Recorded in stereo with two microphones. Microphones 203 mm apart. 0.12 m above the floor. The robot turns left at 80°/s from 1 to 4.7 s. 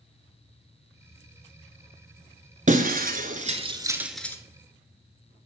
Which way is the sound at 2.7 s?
40° right (ahead or behind).